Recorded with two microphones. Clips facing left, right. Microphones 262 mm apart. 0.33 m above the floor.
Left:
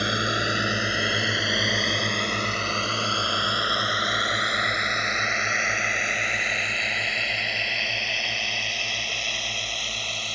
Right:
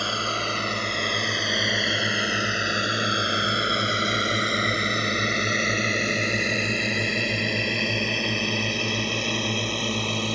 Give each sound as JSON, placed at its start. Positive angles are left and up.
{"t": 0.0, "sound": "a drone", "side_deg": 20}